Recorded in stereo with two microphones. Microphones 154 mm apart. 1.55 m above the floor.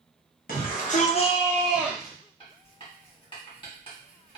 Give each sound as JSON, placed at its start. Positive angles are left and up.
{"t": 0.5, "sound": "a shout", "side_deg": 70, "distance_m": 1.0}
{"t": 2.4, "sound": "writing", "side_deg": 35, "distance_m": 1.5}